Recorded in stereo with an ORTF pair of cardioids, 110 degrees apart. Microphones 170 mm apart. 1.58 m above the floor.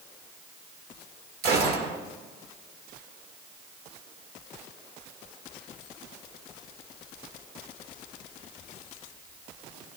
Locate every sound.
1.4 s a gunshot: 70° right, 1.8 m